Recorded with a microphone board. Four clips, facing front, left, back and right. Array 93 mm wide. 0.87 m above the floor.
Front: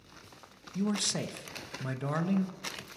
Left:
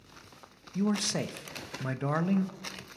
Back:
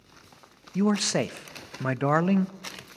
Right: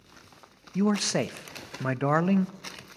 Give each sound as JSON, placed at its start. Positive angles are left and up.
{"t": 0.8, "sound": "a man speaking", "azimuth_deg": -145, "distance_m": 0.6}